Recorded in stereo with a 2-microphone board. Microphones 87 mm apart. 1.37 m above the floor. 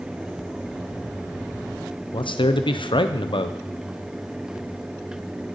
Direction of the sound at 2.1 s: 65° left (ahead or behind).